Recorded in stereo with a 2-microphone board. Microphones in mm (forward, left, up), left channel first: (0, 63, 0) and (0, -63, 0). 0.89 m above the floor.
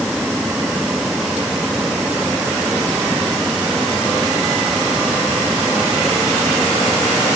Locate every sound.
Only background noise.